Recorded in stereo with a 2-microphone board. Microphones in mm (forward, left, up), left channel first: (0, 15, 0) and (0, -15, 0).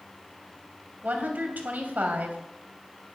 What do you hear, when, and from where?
1.0 s a woman speaking: 70° right (ahead or behind), 3 m